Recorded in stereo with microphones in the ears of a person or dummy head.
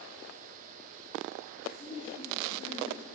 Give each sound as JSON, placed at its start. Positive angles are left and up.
{"t": 1.7, "sound": "a woman speaking", "side_deg": 20, "distance_m": 5.5}